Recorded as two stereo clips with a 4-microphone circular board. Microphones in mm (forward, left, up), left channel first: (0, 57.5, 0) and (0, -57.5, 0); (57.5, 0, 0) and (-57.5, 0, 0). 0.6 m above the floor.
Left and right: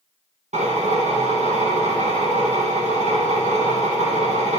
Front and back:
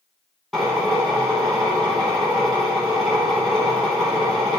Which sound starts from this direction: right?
A drill, at 0.5 s.